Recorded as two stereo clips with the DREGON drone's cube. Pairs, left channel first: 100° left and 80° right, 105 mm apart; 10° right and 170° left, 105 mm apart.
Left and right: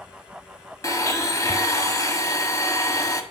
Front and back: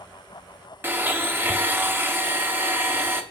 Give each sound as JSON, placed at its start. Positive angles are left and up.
{"t": 0.8, "sound": "a blender", "azimuth_deg": 115, "distance_m": 1.3}